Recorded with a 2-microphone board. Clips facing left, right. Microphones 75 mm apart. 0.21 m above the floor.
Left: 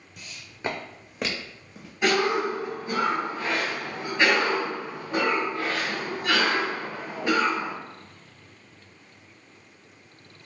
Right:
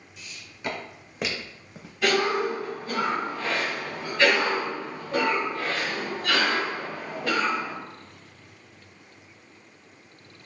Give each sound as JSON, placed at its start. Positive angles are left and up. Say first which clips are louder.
{"t": 0.2, "sound": "footsteps", "louder": "left 2 dB", "side_deg": 50, "distance_m": 0.8}
{"t": 2.0, "sound": "a cough", "louder": "even", "side_deg": 10, "distance_m": 1.7}